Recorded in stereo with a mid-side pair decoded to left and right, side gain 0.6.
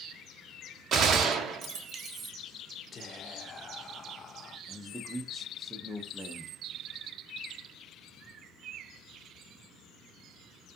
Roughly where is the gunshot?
Ahead right.